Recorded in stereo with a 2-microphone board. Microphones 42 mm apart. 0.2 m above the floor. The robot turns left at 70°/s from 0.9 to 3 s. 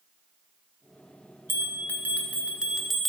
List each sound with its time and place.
1.5 s a bell: 80° right, 1.3 m; by 3.1 s 175° left, 1.3 m